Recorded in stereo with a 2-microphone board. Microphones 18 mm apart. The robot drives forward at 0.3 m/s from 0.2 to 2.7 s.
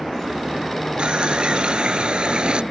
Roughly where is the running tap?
Right.